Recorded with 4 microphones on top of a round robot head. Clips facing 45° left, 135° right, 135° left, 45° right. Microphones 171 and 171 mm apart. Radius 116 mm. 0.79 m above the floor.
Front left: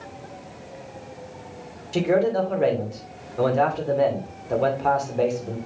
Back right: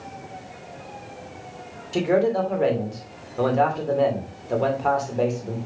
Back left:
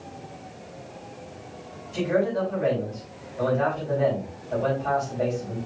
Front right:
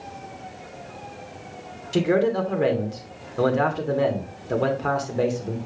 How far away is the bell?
No bell in this recording.